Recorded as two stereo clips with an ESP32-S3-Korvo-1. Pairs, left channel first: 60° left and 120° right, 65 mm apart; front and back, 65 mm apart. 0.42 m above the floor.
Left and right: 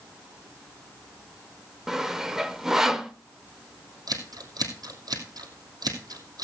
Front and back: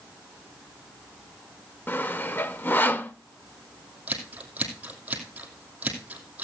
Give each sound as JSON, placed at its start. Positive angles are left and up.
{"t": 1.9, "sound": "sawing", "azimuth_deg": -45, "distance_m": 0.8}
{"t": 4.1, "sound": "scissors", "azimuth_deg": -110, "distance_m": 2.5}